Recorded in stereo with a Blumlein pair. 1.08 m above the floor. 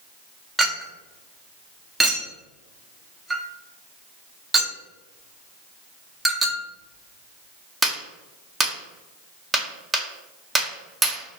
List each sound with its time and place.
0.6 s a clink: 10° right, 0.7 m